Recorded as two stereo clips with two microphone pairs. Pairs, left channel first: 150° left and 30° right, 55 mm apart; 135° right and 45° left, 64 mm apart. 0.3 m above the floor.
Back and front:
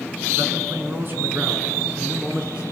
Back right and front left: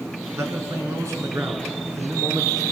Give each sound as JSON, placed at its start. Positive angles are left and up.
{"t": 0.4, "sound": "a man speaking", "azimuth_deg": 10, "distance_m": 3.0}